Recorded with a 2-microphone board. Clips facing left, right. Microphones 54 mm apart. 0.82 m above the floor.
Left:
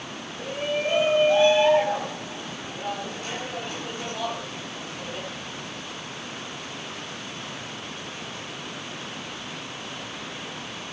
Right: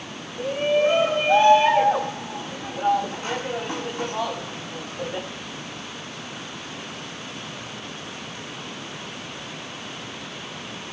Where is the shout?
30° right (ahead or behind), 5.5 m.